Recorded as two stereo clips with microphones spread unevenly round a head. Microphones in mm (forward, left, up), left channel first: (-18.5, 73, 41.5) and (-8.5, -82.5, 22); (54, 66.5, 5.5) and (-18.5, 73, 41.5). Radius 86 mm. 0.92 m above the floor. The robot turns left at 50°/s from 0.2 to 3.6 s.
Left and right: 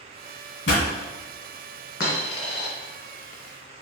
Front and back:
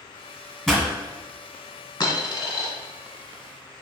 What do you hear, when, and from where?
0.7 s a pop: 95° left, 2.0 m; by 0.8 s 85° left, 2.0 m
2.0 s a dropped coin: 30° left, 1.6 m; by 2.7 s 5° right, 1.6 m